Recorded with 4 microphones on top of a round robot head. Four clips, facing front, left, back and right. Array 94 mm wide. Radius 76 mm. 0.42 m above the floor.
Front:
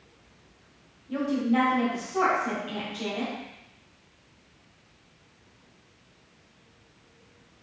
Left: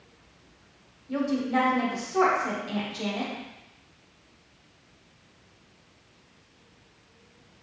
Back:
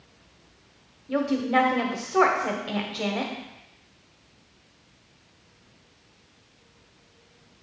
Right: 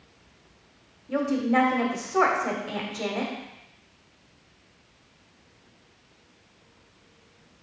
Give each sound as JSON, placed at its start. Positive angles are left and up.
{"t": 1.1, "sound": "a woman speaking", "azimuth_deg": -150, "distance_m": 1.4}